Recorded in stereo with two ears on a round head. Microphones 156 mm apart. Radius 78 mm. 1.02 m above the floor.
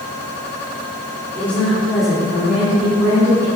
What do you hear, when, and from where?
1.4 s a woman speaking: 10° left (ahead or behind), 2.5 m; by 3.5 s 20° right (ahead or behind), 3.5 m